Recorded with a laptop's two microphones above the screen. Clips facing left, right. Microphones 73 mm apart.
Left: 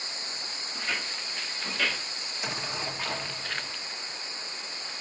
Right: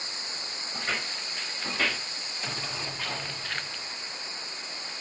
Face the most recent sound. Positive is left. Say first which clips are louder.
# left 3 dB
turn(degrees=15)  # may be behind; listen again after turning